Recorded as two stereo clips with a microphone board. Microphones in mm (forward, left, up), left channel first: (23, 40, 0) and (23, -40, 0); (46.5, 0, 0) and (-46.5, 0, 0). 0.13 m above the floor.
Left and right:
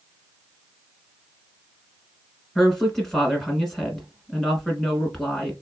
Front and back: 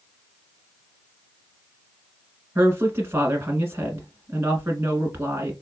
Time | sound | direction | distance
2.5 | a woman speaking | 165° left | 1.1 m